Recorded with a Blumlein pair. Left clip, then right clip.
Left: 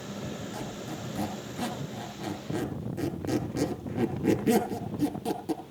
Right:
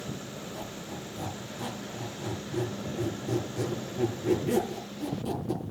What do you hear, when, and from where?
0.5 s a squeak: 25° left, 8 m